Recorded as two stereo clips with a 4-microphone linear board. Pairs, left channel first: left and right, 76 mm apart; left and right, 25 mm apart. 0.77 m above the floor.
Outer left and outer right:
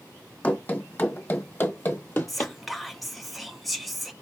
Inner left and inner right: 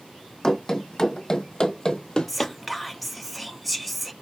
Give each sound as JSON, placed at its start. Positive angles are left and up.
{"t": 0.4, "sound": "running footsteps", "side_deg": 20, "distance_m": 1.3}
{"t": 2.3, "sound": "whispering", "side_deg": 0, "distance_m": 0.6}